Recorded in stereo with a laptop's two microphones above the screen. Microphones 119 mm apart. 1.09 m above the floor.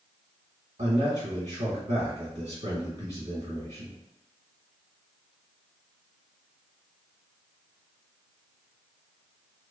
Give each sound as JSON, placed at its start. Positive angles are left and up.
{"t": 0.8, "sound": "a man speaking", "side_deg": -75, "distance_m": 1.2}